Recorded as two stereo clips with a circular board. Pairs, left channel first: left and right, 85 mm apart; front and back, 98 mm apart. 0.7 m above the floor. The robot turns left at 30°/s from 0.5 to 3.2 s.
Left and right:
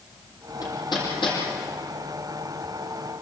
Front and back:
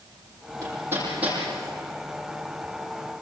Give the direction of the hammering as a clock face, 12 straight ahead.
8 o'clock.